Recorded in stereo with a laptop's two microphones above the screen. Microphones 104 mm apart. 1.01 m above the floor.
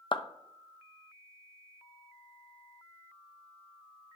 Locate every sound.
0.1 s a clap: 50° left (ahead or behind), 0.6 m